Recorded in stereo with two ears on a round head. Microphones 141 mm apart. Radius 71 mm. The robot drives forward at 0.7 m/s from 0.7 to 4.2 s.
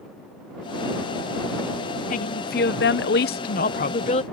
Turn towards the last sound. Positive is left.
turn(degrees=40)  # may be behind; listen again after turning